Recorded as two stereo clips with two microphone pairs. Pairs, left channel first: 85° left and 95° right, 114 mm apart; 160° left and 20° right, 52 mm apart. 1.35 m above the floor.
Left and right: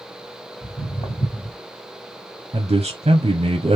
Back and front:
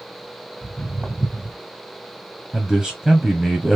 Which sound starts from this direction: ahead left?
Footsteps, at 0.6 s.